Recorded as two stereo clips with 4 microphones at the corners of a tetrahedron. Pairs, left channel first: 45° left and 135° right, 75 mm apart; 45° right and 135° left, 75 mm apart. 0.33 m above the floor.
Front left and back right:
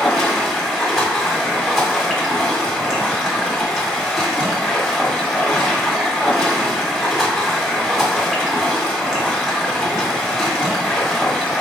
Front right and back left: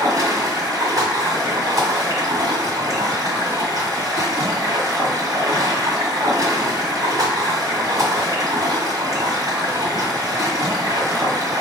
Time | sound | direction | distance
0.0 | running water | 140° left | 1.6 m